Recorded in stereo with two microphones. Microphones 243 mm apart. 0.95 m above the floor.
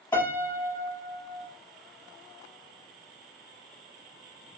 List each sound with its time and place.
0.1 s a piano: 10° left (ahead or behind), 1.9 m